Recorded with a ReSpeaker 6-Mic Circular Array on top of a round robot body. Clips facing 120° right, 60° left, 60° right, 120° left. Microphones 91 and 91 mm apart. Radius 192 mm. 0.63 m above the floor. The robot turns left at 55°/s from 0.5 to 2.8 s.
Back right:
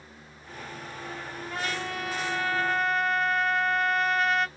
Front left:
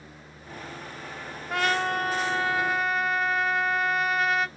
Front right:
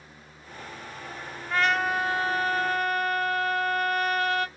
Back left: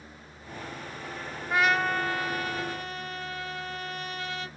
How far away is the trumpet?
About 0.6 m.